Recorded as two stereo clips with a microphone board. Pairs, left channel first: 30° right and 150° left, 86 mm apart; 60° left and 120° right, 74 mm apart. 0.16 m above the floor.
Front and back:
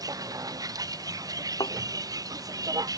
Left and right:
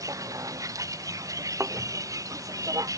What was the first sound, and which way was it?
A vehicle, 165° right.